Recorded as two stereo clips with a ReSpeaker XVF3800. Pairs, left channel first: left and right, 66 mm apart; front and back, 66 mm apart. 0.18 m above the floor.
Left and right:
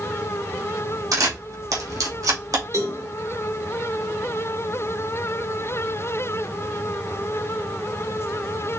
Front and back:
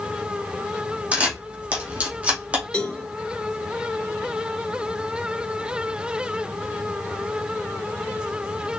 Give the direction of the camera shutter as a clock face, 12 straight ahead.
4 o'clock.